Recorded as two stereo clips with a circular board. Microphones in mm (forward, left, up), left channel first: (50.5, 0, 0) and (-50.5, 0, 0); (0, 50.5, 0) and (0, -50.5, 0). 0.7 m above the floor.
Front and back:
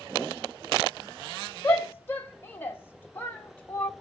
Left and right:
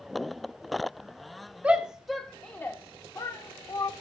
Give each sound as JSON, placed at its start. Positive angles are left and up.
{"t": 1.6, "sound": "a shout", "azimuth_deg": -35, "distance_m": 0.9}